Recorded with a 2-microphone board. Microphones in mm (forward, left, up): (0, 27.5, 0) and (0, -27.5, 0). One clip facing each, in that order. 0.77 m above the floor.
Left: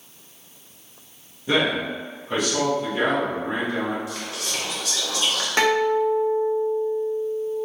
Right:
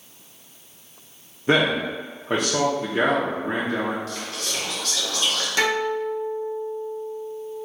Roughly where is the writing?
No writing in this recording.